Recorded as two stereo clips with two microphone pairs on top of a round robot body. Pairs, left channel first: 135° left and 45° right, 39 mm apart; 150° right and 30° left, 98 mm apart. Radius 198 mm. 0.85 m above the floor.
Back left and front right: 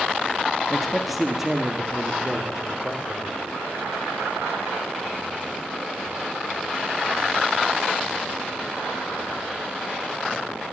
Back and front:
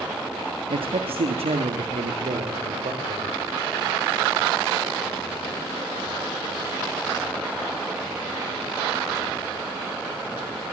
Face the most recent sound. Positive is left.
turn(degrees=20)